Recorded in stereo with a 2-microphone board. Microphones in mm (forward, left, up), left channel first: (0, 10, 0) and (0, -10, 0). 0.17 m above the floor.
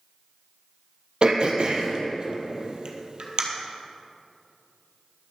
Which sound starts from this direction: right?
Throat clearing, at 1.2 s.